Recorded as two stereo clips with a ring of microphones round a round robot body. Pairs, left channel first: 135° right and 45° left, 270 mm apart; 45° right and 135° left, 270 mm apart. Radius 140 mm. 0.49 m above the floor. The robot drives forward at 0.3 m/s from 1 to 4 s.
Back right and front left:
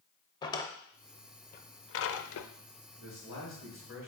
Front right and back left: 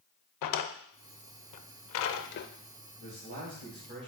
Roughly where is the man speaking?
Behind.